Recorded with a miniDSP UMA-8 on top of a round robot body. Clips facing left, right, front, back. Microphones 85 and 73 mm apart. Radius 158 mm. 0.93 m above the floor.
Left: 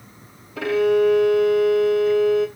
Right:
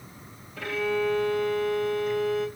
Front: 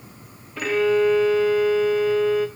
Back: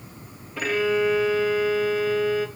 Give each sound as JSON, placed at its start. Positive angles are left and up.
{"t": 0.6, "sound": "a violin", "azimuth_deg": 90, "distance_m": 0.7}